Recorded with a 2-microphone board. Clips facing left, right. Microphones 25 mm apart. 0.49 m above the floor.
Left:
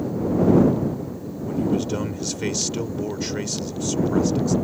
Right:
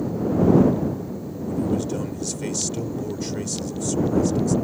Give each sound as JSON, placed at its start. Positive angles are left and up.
{"t": 1.5, "sound": "a man speaking", "side_deg": 30}